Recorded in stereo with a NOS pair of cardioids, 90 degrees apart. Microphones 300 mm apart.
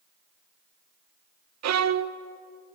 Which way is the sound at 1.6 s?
65° right.